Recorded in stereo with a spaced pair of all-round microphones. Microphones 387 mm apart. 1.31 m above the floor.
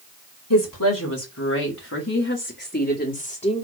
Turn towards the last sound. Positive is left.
turn(degrees=15)  # may be behind; listen again after turning